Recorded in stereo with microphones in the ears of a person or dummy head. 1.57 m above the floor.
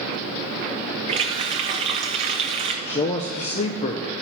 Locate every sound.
1.1 s a running tap: 30° right (ahead or behind), 1.0 m
2.9 s a man speaking: 35° left (ahead or behind), 0.6 m